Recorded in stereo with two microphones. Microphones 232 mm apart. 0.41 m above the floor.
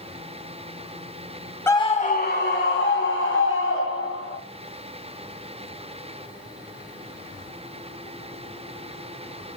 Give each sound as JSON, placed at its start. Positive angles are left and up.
{"t": 1.7, "sound": "a scream", "side_deg": 10, "distance_m": 1.1}